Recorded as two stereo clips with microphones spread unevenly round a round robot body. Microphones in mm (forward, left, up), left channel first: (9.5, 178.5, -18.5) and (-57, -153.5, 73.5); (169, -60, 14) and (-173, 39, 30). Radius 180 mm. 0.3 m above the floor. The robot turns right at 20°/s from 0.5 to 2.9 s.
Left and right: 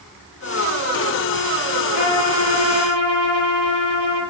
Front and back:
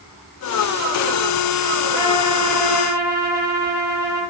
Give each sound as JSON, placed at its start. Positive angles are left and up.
{"t": 1.9, "sound": "a trumpet", "azimuth_deg": 80, "distance_m": 6.5}